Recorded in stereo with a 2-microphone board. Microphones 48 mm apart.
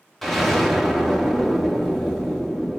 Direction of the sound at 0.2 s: 5° left (ahead or behind).